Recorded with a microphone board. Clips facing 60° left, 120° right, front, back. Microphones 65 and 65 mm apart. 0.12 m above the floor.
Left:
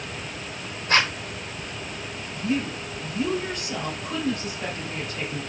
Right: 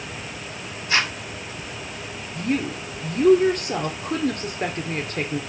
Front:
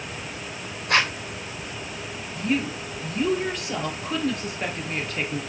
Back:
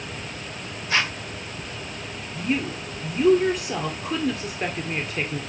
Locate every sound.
0.9 s a zipper: 20° left, 2 m
2.4 s a woman speaking: 100° right, 2 m